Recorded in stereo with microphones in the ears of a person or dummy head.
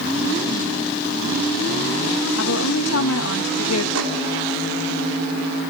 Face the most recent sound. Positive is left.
turn(degrees=-80)